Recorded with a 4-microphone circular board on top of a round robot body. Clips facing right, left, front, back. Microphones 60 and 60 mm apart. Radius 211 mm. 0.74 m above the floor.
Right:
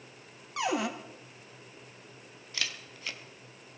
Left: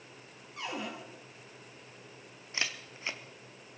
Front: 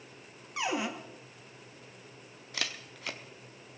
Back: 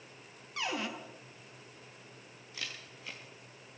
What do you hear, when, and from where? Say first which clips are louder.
0.6 s a cupboard door: right 8 dB, front 4 dB; 75° right, 1.2 m
2.5 s a camera shutter: left 1 dB, front 6 dB; 25° left, 0.8 m